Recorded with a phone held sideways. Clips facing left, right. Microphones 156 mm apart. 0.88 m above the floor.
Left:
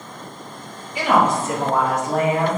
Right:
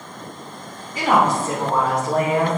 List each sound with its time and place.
0.9 s a woman speaking: 45° right (ahead or behind), 2.5 m; by 2.6 s 35° right (ahead or behind), 4 m